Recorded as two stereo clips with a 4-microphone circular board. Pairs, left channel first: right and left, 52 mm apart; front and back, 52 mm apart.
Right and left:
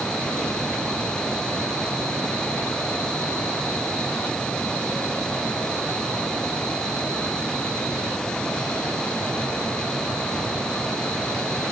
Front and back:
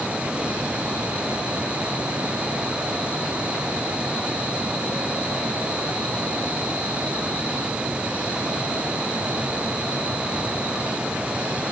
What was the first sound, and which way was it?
Only background noise.